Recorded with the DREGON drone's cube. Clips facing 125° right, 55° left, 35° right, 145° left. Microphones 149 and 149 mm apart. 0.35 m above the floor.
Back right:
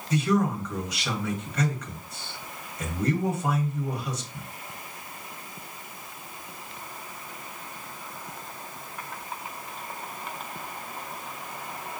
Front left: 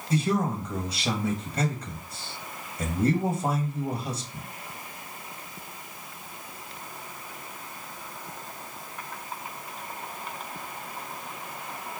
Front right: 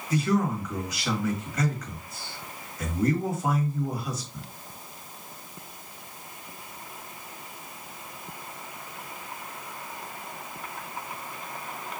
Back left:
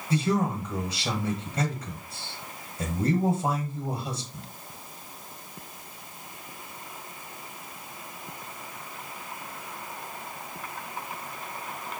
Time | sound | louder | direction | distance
0.1 | a man speaking | back right 2 dB, front right 1 dB | 100° left | 1.3 m